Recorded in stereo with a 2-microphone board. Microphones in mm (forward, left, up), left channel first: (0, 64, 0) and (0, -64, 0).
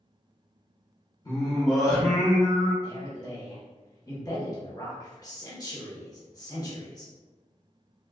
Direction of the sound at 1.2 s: 30° left (ahead or behind).